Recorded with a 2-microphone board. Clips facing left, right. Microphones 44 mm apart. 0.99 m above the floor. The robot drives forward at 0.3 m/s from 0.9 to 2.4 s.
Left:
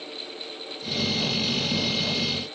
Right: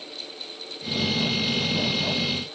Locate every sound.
Only background noise.